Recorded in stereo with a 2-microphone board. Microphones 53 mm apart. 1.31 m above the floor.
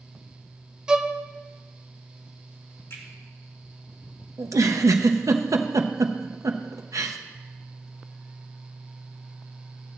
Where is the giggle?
90° right, 0.6 m.